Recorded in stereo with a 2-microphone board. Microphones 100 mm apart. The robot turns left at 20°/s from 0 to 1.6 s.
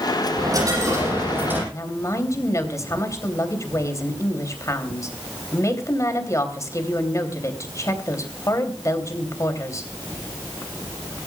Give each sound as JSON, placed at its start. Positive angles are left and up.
{"t": 0.3, "sound": "a dropped coin", "side_deg": -45, "distance_m": 8.5}
{"t": 1.7, "sound": "a woman speaking", "side_deg": 35, "distance_m": 3.0}